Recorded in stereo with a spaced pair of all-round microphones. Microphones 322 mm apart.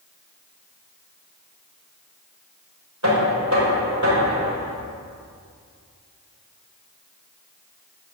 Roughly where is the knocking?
Right.